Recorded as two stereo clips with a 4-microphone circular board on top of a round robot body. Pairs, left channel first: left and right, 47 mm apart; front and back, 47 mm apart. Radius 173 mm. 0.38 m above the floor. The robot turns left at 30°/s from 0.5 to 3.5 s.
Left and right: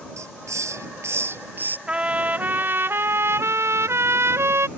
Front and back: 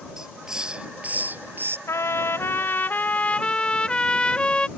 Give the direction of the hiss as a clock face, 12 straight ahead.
3 o'clock.